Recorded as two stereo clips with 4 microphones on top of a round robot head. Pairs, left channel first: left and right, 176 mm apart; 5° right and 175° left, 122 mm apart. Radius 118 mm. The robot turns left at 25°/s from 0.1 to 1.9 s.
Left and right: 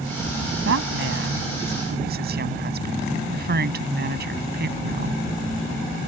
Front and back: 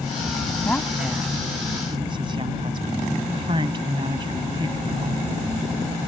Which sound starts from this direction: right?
A woman speaking, at 0.7 s.